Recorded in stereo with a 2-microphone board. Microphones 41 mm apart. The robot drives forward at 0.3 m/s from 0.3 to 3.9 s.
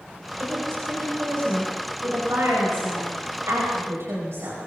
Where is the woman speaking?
80° right, 9.5 m; by 4.6 s 75° right (ahead or behind), 9.5 m.